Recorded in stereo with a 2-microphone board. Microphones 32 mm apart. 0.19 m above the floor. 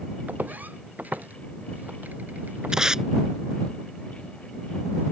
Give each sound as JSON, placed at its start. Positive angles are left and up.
{"t": 0.3, "sound": "footsteps", "side_deg": -75}
{"t": 2.7, "sound": "tape being pulled", "side_deg": -20}